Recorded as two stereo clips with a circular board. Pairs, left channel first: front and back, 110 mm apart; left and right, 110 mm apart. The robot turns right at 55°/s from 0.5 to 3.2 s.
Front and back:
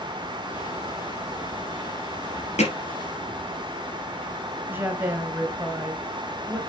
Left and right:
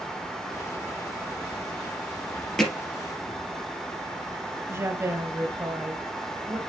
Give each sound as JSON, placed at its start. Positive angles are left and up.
{"t": 2.6, "sound": "hammering", "azimuth_deg": 5, "distance_m": 3.5}
{"t": 4.7, "sound": "a woman speaking", "azimuth_deg": -130, "distance_m": 1.2}